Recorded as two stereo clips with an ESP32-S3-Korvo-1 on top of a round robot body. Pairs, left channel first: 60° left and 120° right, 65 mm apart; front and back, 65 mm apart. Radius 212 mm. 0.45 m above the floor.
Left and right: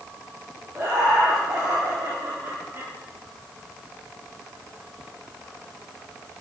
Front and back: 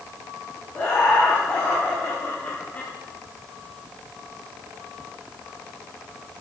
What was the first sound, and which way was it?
Laughter, 70° right.